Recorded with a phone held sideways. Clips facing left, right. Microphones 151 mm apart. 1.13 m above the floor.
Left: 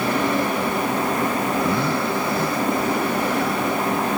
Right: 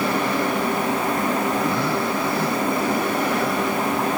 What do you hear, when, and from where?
Only background noise.